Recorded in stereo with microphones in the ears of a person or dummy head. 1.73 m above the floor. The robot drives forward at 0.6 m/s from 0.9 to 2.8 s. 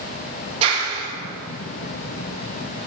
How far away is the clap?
About 4.5 m.